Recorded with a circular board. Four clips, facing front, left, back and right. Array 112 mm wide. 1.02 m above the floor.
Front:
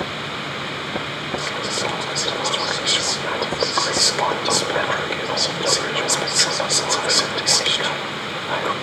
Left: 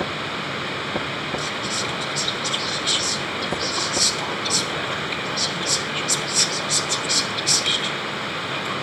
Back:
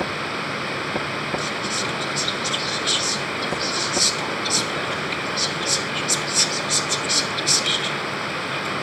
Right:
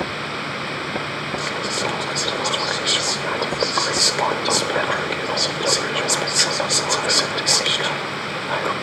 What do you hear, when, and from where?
1.4 s whispering: 45° right, 1.5 m